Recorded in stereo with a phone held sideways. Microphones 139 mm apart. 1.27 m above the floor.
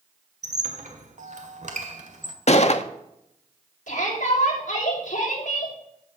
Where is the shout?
65° left (ahead or behind), 5.5 m.